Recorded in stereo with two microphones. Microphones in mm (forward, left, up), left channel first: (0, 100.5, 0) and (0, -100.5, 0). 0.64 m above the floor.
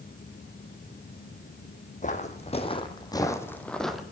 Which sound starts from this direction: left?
Footsteps, at 2.0 s.